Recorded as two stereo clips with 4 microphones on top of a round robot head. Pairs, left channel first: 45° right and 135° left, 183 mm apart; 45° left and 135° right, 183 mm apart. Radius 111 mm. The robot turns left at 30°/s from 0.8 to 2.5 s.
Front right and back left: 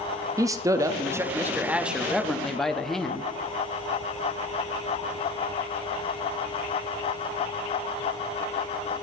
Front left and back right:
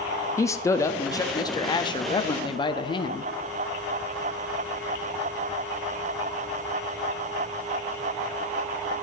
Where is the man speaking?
95° left, 0.7 m; by 3.2 s 40° left, 0.7 m.